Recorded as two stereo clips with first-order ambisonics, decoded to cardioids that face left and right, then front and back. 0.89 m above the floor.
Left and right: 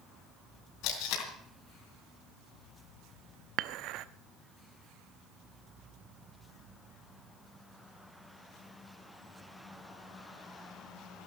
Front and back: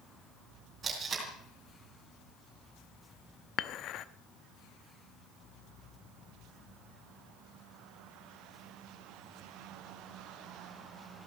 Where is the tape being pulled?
110° left, 4 m.